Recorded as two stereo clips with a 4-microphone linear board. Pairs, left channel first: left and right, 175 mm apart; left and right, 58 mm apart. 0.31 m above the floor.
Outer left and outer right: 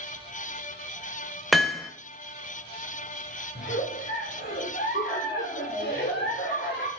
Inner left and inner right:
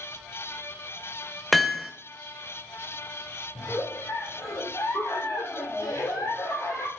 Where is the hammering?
Centre (ahead or behind), 0.9 m.